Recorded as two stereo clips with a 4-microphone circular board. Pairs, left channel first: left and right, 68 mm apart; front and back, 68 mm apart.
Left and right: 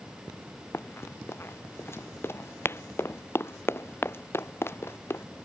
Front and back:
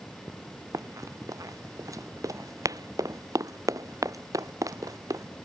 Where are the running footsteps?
145° left.